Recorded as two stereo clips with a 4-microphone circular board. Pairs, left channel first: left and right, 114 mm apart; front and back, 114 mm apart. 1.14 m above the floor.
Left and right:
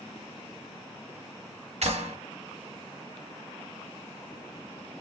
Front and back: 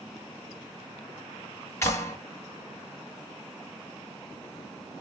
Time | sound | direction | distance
1.8 | a clap | 65° right | 1.1 m